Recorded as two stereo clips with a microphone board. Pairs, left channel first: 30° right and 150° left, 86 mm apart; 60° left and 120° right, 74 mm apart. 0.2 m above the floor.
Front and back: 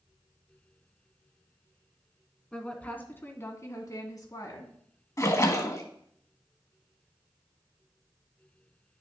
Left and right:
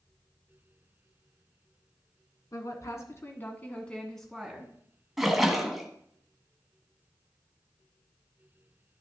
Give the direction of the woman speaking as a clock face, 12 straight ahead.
11 o'clock.